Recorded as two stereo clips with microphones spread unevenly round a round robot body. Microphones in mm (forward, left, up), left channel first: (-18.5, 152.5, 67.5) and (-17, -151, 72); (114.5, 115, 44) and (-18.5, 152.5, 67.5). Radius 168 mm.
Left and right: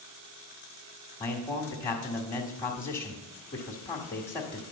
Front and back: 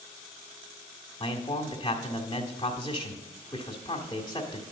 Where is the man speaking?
15° left, 1.6 m.